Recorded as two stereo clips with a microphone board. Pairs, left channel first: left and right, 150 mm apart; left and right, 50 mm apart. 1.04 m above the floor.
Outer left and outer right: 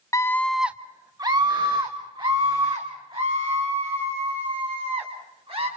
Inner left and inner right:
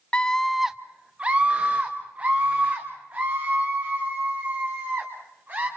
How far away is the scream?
About 0.7 m.